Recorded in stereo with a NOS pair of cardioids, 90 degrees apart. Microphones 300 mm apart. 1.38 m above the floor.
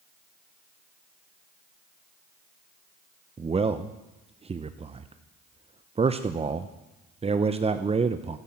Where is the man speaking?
20° right, 0.7 m.